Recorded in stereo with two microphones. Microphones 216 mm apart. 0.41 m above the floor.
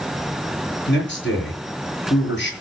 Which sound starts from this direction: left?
A man speaking, at 0.9 s.